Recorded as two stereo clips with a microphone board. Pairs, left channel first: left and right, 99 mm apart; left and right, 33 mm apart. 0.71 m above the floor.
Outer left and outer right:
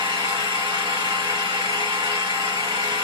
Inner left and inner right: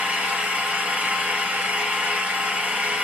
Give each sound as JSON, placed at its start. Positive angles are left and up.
{"t": 0.0, "sound": "an engine running", "side_deg": -60, "distance_m": 1.4}